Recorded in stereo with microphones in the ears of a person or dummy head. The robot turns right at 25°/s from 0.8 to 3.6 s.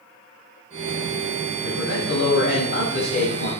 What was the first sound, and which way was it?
A man speaking, 95° left.